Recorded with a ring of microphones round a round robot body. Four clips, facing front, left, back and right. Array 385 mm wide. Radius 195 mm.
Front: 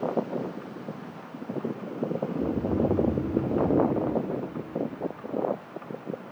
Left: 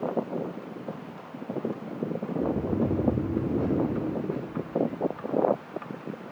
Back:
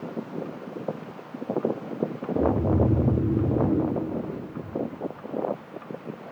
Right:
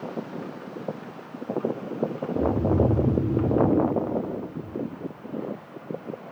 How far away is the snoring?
About 6 m.